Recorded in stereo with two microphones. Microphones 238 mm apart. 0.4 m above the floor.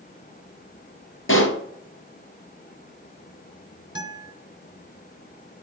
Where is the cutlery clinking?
I don't hear cutlery clinking.